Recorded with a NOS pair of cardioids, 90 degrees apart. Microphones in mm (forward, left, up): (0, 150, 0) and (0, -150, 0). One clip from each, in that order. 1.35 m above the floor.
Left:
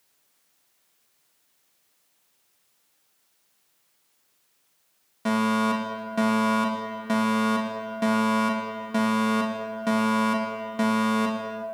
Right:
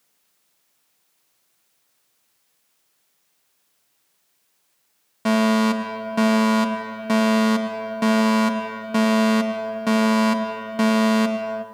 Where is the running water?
No running water in this recording.